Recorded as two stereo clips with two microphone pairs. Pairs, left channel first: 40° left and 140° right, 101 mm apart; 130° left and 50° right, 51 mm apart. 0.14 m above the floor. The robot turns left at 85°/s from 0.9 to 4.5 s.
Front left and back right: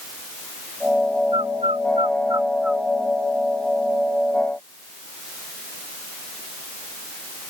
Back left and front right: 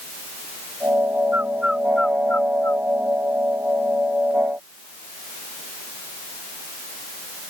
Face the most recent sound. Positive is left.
turn(degrees=-15)